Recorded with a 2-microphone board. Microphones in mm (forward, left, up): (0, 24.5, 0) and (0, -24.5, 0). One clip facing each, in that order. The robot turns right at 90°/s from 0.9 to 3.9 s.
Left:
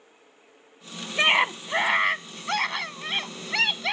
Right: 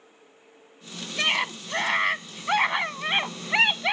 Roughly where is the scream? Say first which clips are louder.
Left 5 dB; left.